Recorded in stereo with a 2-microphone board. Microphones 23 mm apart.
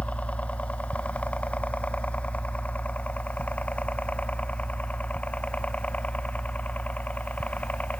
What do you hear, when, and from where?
0.0 s a helicopter: 75° left (ahead or behind); by 8.0 s 80° left